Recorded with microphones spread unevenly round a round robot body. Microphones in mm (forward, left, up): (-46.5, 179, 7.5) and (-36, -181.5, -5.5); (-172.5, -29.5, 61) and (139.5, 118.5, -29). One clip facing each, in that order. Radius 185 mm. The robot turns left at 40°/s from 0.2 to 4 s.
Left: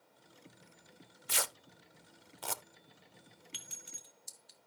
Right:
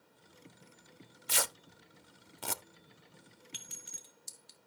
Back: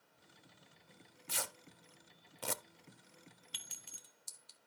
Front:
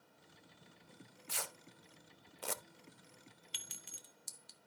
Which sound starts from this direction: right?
Tearing paper, at 1.3 s.